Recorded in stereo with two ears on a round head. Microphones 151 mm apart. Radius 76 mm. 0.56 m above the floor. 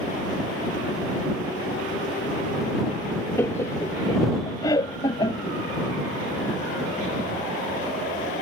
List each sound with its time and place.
3.4 s laughter: 15° left (ahead or behind); by 5.6 s 25° left (ahead or behind)